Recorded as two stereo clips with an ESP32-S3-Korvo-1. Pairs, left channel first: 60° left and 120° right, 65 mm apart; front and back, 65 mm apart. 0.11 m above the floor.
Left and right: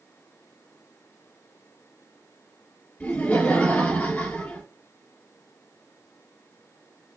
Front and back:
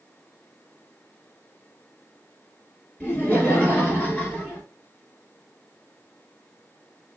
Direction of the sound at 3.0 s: 25° left.